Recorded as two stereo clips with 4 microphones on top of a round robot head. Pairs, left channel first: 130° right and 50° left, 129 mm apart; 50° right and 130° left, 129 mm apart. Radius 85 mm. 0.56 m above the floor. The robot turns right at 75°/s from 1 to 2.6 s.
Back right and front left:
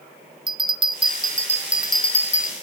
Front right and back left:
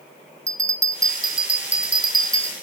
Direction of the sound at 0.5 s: 75° left.